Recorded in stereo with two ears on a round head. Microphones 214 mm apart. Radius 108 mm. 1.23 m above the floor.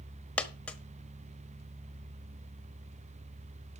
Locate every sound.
0.4 s a dropped coin: 5° left (ahead or behind), 1.0 m